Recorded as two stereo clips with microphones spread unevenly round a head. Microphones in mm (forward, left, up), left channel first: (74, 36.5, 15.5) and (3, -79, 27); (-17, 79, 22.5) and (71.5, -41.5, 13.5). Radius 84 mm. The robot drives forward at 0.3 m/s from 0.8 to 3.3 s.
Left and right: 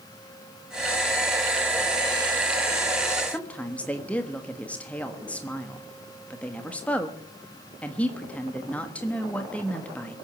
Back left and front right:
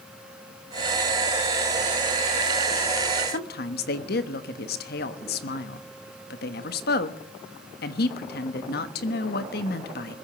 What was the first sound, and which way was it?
A woman speaking, 140° left.